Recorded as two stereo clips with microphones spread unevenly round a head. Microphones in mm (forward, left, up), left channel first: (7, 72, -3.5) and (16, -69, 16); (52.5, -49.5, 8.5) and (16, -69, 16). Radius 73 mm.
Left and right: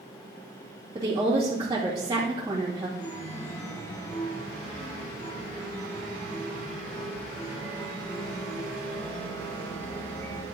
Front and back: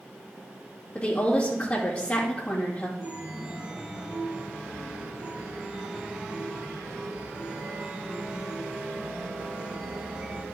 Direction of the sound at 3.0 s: 175° left.